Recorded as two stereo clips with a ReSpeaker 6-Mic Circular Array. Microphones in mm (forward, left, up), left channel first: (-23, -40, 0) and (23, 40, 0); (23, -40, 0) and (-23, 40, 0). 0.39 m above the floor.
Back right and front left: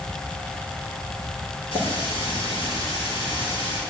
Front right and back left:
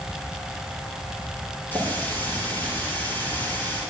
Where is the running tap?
130° right, 5.5 m.